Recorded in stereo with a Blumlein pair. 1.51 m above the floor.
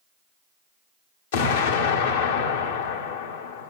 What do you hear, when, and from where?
1.3 s an explosion: 60° left, 1.3 m